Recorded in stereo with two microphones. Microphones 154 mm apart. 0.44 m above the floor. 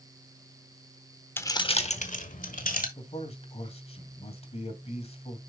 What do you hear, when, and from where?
1.4 s keys jangling: 15° left (ahead or behind), 1.0 m; by 2.9 s 65° left (ahead or behind), 2 m
3.0 s a man speaking: 40° left (ahead or behind), 2 m